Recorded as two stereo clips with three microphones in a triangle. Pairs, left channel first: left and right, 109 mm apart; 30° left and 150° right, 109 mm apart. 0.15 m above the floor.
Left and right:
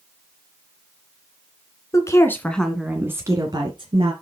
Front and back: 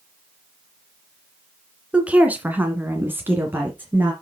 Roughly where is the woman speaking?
Behind left.